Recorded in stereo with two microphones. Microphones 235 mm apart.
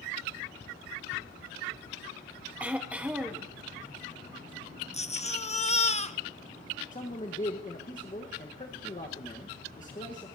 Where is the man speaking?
35° left (ahead or behind), 1.3 m.